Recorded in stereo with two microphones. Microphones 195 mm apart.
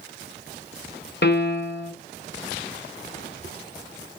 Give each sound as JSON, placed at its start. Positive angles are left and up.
{"t": 1.2, "sound": "a piano", "side_deg": 60, "distance_m": 1.7}